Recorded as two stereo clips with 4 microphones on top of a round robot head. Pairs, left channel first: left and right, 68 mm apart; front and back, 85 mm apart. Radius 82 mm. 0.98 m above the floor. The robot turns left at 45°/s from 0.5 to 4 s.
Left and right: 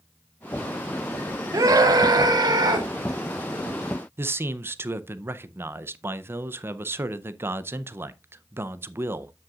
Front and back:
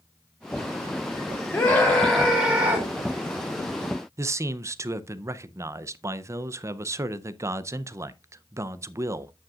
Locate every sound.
1.5 s a scream: 65° right, 1.3 m; by 2.9 s 125° right, 1.3 m
4.2 s a man speaking: 135° right, 0.6 m